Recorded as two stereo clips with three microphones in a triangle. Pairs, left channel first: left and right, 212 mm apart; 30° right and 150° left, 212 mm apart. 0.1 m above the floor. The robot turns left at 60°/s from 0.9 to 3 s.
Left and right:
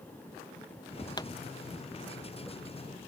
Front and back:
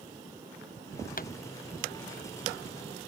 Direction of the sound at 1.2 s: 20° left.